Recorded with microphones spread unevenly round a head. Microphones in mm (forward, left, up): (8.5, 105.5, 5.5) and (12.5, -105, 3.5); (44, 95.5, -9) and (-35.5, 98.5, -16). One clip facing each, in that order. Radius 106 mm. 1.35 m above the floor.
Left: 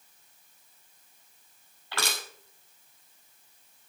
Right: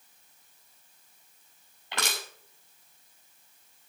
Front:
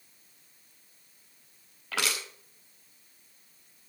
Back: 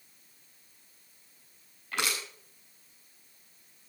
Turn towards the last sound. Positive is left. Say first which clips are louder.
# even, front 1 dB
turn(degrees=-15)